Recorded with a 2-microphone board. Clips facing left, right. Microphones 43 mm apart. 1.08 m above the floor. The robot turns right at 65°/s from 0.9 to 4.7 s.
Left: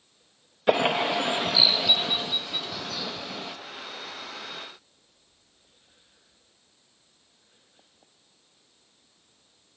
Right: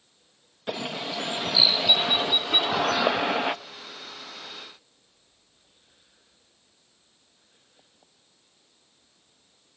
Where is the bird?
130° left, 0.7 m; by 3.5 s 55° right, 0.7 m.